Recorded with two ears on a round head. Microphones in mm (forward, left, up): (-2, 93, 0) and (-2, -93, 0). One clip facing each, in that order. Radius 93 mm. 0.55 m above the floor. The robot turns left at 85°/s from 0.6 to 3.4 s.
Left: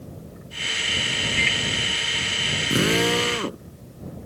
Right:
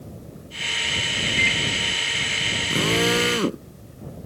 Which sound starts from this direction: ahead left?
A drill, at 2.7 s.